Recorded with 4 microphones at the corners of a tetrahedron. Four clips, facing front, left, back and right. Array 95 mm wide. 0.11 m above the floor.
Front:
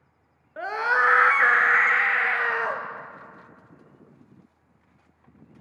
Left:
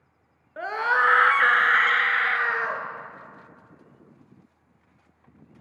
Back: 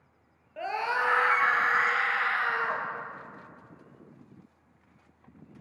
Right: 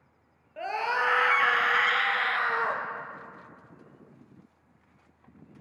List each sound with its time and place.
0.6 s a scream: 45° left, 1.3 m; by 2.8 s 15° right, 2 m